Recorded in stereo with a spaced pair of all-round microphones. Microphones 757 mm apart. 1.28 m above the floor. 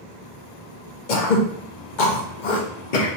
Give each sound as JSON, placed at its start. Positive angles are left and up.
{"t": 1.1, "sound": "throat clearing", "side_deg": 80, "distance_m": 0.9}